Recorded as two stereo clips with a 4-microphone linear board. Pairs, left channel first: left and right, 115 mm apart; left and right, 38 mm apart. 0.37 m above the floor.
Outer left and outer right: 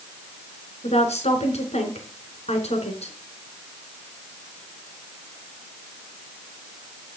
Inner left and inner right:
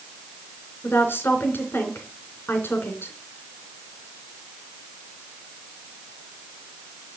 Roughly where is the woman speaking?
Left.